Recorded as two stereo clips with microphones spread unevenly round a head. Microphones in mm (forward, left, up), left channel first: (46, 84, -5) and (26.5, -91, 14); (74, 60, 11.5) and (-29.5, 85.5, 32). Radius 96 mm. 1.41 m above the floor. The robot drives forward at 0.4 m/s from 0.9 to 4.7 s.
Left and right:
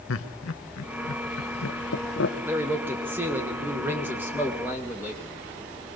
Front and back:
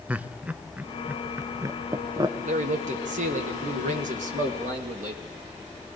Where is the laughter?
90° left, 1.3 m; by 2.4 s 115° left, 1.4 m.